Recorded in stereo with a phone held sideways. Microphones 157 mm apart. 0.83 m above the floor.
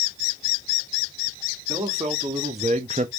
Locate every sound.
1.7 s a man speaking: 40° right (ahead or behind), 1.9 m; by 3.1 s 45° right (ahead or behind), 0.6 m